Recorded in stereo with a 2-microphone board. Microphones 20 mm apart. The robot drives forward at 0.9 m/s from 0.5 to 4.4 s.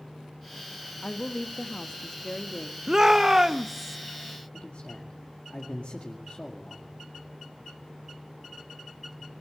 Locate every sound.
1.0 s a woman speaking: 50° left (ahead or behind), 1.3 m; by 2.8 s 30° left (ahead or behind), 2.0 m
2.9 s a shout: 20° right (ahead or behind), 0.5 m; by 4.0 s 10° right (ahead or behind), 1.2 m
4.5 s a man speaking: 60° left (ahead or behind), 2 m